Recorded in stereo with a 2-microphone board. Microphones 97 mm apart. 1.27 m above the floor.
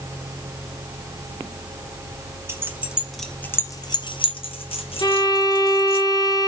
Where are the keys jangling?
25° right (ahead or behind), 0.8 m; by 6.0 s 80° left, 1.5 m.